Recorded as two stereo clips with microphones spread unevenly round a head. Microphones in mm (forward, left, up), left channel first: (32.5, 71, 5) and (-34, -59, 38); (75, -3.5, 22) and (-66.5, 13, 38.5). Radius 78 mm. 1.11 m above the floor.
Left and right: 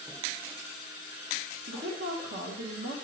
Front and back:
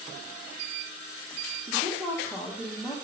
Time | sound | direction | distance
1.7 | a woman speaking | 90° right | 1.1 m